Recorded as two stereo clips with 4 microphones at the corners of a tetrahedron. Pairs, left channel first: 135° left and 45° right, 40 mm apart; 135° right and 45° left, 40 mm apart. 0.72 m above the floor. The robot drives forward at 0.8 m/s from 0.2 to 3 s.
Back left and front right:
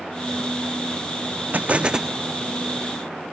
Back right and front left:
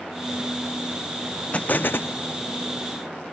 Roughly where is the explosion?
Right.